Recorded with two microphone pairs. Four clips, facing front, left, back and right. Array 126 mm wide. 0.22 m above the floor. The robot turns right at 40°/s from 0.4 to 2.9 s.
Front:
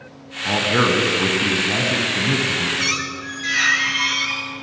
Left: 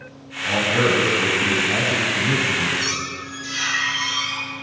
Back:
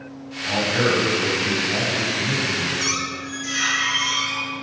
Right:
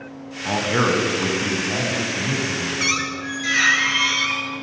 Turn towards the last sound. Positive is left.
turn(degrees=-40)